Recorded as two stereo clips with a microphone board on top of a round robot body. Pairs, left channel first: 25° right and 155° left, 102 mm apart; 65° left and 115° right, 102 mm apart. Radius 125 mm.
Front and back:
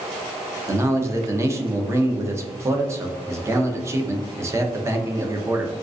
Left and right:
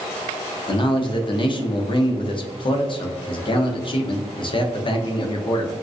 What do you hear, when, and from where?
0.7 s a man speaking: 100° left, 0.7 m